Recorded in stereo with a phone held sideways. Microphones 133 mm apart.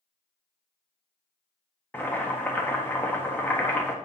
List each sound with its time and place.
1.9 s boiling: 15° left (ahead or behind), 1.3 m